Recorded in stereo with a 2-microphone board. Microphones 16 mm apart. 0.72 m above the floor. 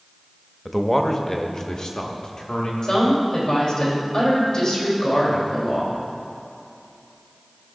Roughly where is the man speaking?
Centre.